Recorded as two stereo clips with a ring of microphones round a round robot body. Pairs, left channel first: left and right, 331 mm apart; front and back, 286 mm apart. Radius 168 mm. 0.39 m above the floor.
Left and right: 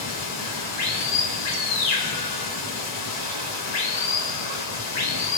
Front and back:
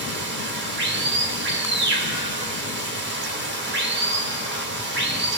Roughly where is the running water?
Behind left.